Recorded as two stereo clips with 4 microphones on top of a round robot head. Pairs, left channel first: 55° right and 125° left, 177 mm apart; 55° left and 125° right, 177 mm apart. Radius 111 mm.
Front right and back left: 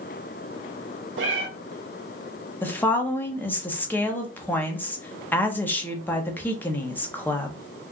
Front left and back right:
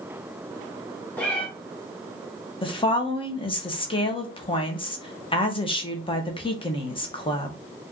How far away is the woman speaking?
About 1.1 m.